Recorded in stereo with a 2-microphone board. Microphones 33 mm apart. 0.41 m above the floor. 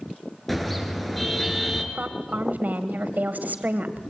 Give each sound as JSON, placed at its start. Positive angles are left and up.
{"t": 0.5, "sound": "a car horn", "side_deg": 5, "distance_m": 3.5}
{"t": 1.9, "sound": "a woman speaking", "side_deg": -60, "distance_m": 2.0}